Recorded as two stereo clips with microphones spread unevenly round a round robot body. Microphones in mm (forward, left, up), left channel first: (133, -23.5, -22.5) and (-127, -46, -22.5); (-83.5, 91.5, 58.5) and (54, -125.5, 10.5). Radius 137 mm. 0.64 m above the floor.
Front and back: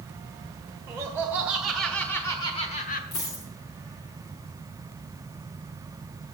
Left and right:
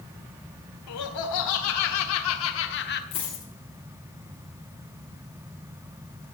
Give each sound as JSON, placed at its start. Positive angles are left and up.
{"t": 0.9, "sound": "laughter", "azimuth_deg": 110, "distance_m": 1.9}
{"t": 3.1, "sound": "a dropped coin", "azimuth_deg": 50, "distance_m": 9.0}